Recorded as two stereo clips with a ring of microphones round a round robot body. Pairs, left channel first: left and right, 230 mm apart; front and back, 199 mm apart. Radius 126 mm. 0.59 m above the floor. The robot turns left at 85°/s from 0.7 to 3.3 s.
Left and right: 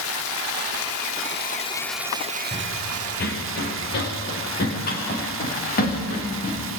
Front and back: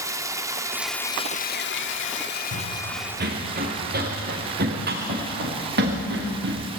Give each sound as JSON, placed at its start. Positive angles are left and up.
{"t": 0.0, "sound": "running water", "azimuth_deg": 105, "distance_m": 0.9}
{"t": 2.5, "sound": "running footsteps", "azimuth_deg": -160, "distance_m": 4.0}